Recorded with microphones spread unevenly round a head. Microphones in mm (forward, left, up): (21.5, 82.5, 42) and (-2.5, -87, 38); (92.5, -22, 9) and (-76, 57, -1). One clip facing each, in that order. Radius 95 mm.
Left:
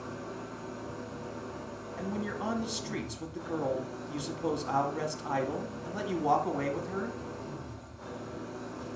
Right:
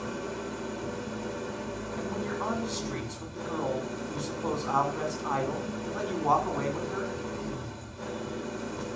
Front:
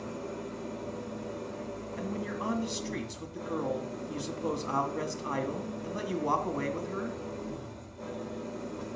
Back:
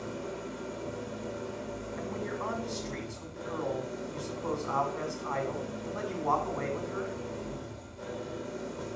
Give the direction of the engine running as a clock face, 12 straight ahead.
4 o'clock.